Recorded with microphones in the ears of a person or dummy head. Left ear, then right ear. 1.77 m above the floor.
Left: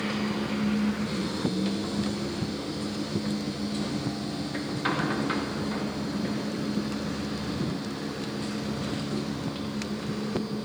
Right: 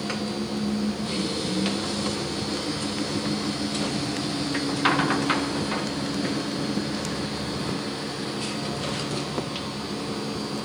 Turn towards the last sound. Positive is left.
turn(degrees=-35)  # may be behind; listen again after turning